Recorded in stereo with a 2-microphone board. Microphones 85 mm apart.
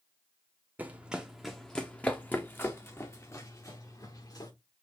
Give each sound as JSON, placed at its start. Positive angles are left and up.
{"t": 0.8, "sound": "running footsteps", "side_deg": -20, "distance_m": 1.0}